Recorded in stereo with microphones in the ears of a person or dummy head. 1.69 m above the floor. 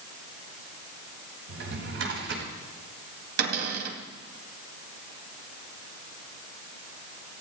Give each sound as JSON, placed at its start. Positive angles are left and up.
{"t": 1.5, "sound": "a drawer", "side_deg": -75, "distance_m": 4.5}
{"t": 3.4, "sound": "a cupboard door", "side_deg": -65, "distance_m": 3.5}